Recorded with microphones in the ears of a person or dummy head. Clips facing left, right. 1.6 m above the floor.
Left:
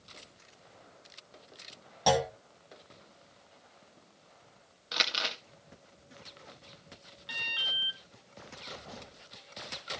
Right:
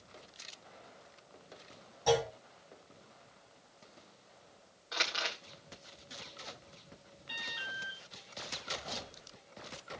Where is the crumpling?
40° left (ahead or behind), 2 m.